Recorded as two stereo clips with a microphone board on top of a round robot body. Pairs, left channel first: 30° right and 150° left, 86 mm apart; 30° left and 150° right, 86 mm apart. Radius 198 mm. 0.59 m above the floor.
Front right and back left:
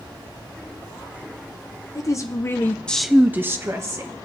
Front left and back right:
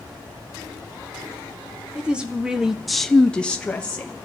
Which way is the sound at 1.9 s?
75° right.